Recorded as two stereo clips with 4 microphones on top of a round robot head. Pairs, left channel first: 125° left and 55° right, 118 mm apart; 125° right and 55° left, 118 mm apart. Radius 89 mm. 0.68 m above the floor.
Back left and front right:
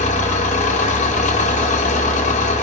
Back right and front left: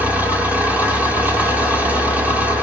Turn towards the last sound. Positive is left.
turn(degrees=130)